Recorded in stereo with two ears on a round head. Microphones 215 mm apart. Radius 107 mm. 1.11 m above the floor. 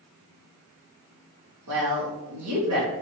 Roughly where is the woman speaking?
Right.